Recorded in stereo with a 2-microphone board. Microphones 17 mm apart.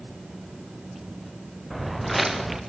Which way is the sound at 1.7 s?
Centre (ahead or behind).